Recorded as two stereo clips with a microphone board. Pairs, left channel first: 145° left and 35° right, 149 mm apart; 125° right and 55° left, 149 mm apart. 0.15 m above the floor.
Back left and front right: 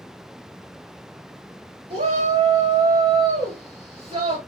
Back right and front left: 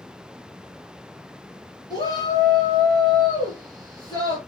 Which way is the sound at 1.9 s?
70° right.